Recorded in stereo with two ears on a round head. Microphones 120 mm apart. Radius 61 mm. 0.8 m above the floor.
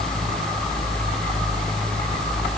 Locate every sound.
Only background noise.